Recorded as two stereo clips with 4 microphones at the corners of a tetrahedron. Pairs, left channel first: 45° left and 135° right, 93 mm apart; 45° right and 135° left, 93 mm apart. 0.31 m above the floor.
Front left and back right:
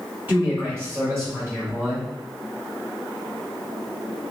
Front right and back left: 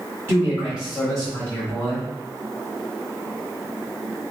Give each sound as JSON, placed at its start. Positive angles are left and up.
{"t": 0.3, "sound": "a man speaking", "azimuth_deg": 170, "distance_m": 1.5}